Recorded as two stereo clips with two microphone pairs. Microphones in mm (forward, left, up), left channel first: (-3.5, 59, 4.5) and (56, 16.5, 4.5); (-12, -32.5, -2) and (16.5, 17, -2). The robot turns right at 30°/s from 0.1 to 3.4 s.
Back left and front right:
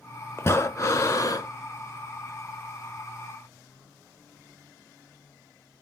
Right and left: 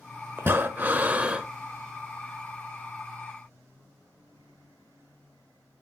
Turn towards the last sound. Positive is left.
turn(degrees=-175)